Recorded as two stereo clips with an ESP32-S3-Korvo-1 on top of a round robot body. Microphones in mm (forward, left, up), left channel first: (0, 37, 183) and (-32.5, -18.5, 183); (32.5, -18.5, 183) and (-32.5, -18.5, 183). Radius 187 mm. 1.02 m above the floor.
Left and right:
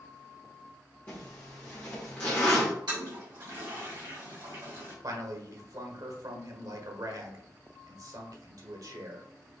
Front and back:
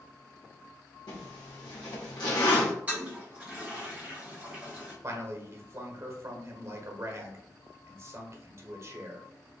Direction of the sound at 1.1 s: 5° right.